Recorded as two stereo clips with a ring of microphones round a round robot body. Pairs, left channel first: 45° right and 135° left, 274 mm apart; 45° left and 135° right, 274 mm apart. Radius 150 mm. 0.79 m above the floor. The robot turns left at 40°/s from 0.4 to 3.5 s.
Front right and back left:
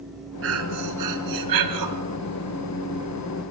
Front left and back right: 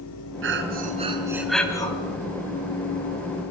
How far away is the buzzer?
No buzzer in this recording.